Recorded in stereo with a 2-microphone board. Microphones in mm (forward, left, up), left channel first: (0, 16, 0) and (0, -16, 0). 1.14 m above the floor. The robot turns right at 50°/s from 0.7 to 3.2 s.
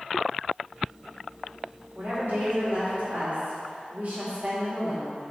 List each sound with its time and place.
1.9 s a woman speaking: 130° right, 1.8 m; by 5.2 s 65° right, 1.8 m